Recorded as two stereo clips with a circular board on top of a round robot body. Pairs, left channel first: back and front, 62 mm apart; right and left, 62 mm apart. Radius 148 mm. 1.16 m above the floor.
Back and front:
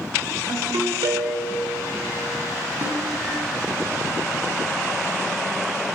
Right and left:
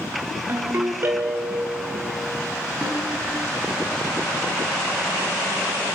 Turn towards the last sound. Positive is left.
turn(degrees=20)